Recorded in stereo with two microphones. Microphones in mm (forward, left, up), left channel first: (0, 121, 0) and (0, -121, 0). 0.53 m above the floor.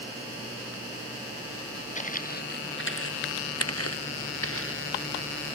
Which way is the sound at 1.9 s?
30° left (ahead or behind).